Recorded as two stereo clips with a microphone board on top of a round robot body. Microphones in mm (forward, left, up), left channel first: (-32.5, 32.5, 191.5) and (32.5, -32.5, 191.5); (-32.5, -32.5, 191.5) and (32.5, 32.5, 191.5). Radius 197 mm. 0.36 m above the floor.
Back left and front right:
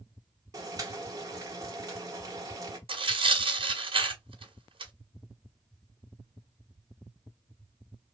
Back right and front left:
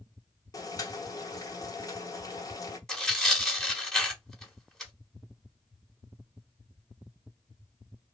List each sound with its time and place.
0.5 s boiling: 90° right, 1.3 m
2.9 s tearing paper: 50° right, 1.6 m